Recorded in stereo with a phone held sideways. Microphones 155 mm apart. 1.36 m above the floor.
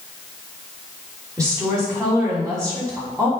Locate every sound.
1.4 s a woman speaking: 20° right (ahead or behind), 3 m